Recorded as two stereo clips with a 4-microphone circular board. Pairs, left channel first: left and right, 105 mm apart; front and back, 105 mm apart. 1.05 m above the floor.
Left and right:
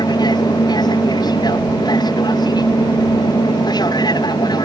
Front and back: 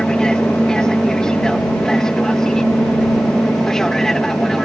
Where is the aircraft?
80° left; by 4.7 s 85° left.